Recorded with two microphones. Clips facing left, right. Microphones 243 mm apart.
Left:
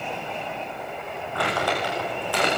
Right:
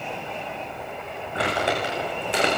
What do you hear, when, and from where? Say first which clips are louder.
1.4 s crumpling: right 1 dB; 25° right (ahead or behind), 9.5 m